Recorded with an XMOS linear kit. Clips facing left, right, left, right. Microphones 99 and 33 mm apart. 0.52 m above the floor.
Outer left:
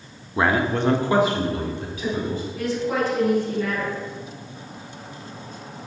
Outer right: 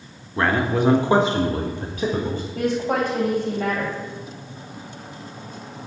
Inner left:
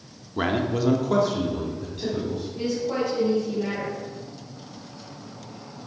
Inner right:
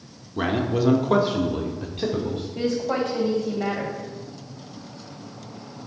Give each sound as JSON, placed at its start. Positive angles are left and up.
{"t": 0.4, "sound": "a man speaking", "side_deg": 15, "distance_m": 0.7}
{"t": 2.5, "sound": "a woman speaking", "side_deg": -55, "distance_m": 3.0}